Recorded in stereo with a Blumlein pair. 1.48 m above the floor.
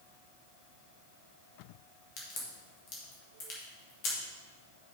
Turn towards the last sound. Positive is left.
turn(degrees=40)